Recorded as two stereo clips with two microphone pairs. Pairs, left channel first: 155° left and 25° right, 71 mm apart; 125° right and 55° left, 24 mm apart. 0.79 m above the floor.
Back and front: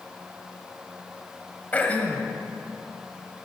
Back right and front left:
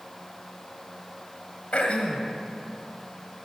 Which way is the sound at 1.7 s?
140° right.